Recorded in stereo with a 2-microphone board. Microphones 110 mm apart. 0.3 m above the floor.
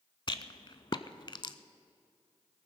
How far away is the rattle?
About 0.6 m.